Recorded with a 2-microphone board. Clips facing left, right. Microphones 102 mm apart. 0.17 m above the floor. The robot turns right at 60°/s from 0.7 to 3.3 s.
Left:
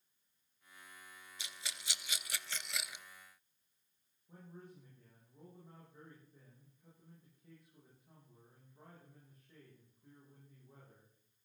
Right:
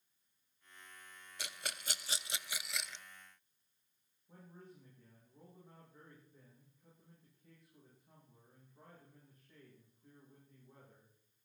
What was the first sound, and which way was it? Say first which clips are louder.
A rattle: right 5 dB; 70° right (ahead or behind).